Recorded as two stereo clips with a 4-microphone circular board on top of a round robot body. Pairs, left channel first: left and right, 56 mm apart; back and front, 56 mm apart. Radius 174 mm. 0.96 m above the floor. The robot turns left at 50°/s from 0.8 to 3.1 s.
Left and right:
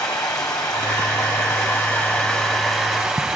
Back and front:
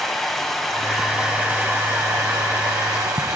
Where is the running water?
95° left, 1.3 m; by 3.4 s 20° right, 1.3 m.